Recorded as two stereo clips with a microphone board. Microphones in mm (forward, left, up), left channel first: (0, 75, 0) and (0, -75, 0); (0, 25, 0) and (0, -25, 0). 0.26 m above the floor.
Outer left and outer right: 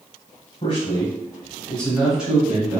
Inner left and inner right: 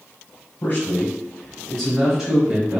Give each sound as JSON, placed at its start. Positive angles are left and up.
{"t": 0.6, "sound": "a man speaking", "side_deg": 40, "distance_m": 1.3}